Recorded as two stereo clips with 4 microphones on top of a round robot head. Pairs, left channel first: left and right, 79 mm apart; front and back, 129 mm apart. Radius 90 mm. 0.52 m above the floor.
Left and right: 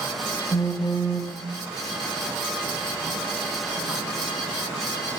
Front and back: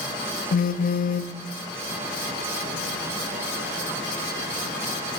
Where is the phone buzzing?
20° left, 0.7 m.